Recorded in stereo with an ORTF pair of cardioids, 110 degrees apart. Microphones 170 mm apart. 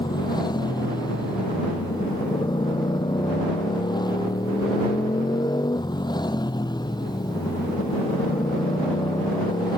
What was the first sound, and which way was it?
A motorcycle, 25° left.